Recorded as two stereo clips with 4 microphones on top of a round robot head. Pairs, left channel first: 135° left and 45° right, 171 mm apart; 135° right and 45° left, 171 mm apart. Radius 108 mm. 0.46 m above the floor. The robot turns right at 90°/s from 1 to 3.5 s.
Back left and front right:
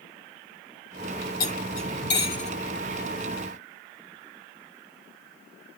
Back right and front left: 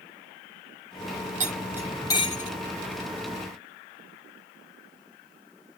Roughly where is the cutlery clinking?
Left.